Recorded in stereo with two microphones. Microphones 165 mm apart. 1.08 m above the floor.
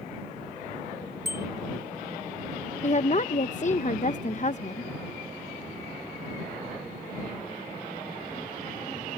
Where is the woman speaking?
50° left (ahead or behind).